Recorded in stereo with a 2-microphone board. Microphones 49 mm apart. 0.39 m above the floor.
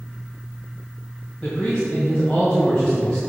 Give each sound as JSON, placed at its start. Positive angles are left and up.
{"t": 1.4, "sound": "a man speaking", "side_deg": 15, "distance_m": 2.0}